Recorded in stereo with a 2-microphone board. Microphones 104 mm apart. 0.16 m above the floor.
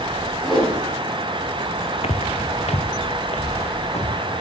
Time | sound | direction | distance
0.4 | a whoosh | 5° left (ahead or behind) | 7 m
2.0 | footsteps | 80° left | 0.8 m